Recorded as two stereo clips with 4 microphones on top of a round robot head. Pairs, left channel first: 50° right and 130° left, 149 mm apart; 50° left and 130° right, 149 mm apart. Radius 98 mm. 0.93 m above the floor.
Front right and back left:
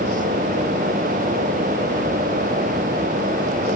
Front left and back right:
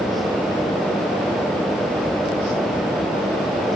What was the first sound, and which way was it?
Only background noise.